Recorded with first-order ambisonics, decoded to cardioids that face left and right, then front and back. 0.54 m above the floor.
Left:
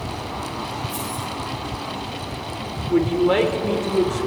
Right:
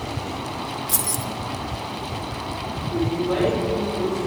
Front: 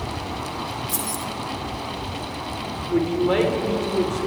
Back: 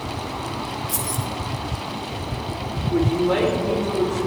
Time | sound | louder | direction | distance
0.9 | keys jangling | right 1 dB, back 1 dB | 85° right | 1.0 m
2.9 | a man speaking | left 6 dB, even | 70° left | 1.9 m